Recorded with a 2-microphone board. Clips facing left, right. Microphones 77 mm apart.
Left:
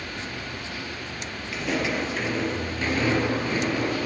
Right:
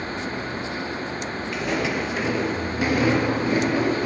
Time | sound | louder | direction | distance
1.5 | footsteps | right 1 dB | centre (ahead or behind) | 2.5 m